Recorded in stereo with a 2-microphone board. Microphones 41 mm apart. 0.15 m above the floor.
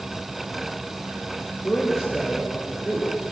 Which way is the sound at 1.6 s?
10° left (ahead or behind).